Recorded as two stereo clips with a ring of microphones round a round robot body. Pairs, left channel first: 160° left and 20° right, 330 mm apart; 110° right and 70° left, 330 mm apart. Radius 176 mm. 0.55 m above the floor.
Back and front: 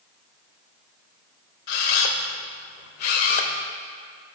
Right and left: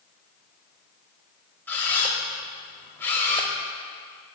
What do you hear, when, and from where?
1.7 s a camera shutter: 160° left, 0.8 m